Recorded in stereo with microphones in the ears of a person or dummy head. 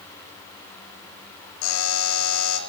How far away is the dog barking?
No dog barking in this recording.